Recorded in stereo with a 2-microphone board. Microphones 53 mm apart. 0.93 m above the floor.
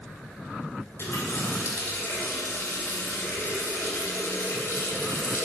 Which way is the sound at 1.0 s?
55° left (ahead or behind).